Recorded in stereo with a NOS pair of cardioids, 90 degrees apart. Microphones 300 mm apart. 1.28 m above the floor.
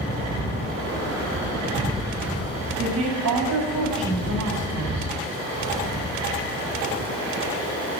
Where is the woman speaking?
65° right, 7 m.